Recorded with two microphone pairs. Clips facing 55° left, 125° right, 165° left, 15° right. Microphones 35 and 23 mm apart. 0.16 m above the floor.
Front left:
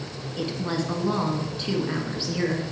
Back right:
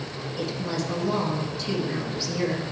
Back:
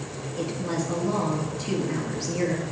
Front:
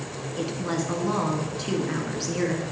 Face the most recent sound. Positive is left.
turn(degrees=15)